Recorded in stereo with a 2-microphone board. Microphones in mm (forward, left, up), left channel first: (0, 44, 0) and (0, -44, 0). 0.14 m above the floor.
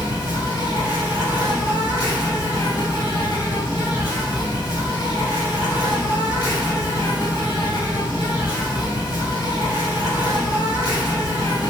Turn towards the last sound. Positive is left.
turn(degrees=40)  # may be behind; listen again after turning